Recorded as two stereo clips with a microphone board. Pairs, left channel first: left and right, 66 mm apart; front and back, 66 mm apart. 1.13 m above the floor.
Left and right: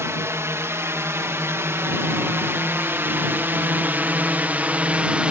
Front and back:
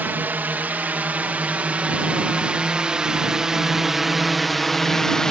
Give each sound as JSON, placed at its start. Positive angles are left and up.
{"t": 0.0, "sound": "a drone", "azimuth_deg": -125}